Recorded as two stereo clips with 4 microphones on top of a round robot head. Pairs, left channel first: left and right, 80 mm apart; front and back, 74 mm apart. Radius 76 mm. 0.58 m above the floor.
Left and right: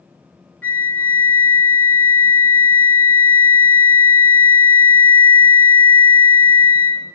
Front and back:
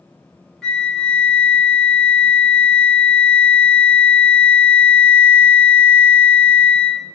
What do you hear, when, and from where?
0.6 s a flute: 70° left, 1.0 m